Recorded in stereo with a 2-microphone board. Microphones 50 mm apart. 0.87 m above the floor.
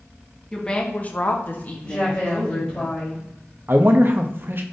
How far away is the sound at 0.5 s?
About 1.2 m.